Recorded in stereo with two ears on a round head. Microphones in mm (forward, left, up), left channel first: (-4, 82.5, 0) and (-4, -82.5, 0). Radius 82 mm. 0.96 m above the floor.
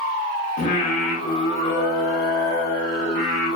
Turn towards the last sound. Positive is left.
turn(degrees=40)  # may be behind; listen again after turning